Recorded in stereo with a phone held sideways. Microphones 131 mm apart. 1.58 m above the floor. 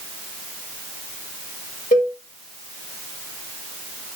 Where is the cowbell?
70° left (ahead or behind), 2 m.